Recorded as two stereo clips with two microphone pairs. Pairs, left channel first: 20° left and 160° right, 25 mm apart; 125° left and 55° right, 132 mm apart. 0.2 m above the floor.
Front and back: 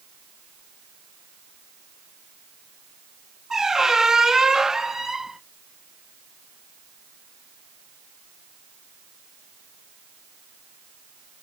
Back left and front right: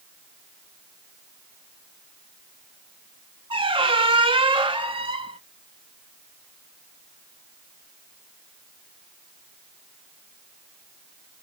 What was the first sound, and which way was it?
A squeak, 90° right.